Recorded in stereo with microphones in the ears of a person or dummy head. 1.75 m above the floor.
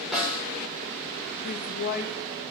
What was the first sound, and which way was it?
A snare drum, 5° right (ahead or behind).